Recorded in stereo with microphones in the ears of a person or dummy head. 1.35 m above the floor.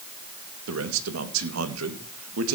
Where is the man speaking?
75° right (ahead or behind), 2 m.